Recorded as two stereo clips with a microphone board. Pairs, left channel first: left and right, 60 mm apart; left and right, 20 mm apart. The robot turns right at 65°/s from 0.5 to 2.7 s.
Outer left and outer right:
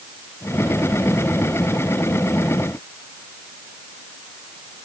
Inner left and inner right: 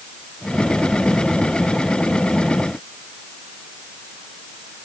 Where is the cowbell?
No cowbell in this recording.